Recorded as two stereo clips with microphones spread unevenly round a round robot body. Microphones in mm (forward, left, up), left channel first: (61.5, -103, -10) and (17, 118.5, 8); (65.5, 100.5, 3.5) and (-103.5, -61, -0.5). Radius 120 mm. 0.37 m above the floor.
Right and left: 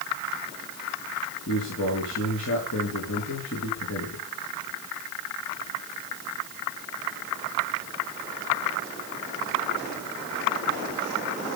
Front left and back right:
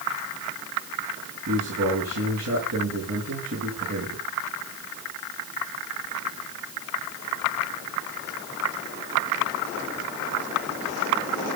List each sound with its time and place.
1.5 s a man speaking: 110° right, 6 m